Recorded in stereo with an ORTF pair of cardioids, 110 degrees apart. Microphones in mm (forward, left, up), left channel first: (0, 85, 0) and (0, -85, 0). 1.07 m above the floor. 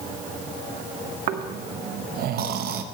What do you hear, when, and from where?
1.3 s snoring: 65° right, 1.0 m